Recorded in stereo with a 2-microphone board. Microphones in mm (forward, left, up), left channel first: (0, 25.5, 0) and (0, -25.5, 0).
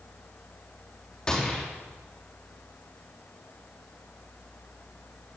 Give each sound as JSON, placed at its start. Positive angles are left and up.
{"t": 1.3, "sound": "a gunshot", "side_deg": 20, "distance_m": 3.5}